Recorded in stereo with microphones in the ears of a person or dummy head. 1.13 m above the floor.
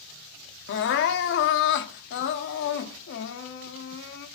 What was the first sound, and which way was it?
Crying, 55° left (ahead or behind).